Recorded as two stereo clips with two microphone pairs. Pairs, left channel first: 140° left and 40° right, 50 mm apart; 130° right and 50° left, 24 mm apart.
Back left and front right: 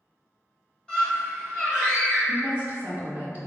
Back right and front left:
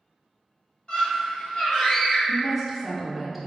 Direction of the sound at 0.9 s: 150° right.